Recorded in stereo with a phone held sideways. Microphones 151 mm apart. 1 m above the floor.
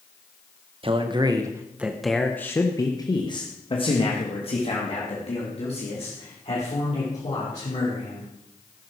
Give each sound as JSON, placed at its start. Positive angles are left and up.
{"t": 0.8, "sound": "a man speaking", "side_deg": -40, "distance_m": 1.1}